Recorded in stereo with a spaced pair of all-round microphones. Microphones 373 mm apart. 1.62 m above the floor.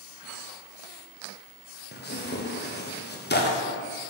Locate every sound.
1.9 s tearing paper: 25° left (ahead or behind), 0.6 m